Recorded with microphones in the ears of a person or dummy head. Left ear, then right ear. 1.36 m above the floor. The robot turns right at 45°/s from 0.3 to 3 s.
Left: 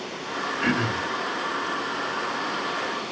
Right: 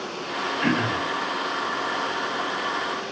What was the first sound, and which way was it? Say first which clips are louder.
Throat clearing: right 1 dB; 5° right (ahead or behind).